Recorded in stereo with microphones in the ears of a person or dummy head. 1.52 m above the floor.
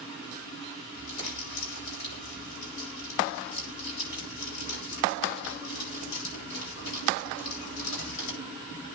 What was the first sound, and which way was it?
Crumpling, 85° left.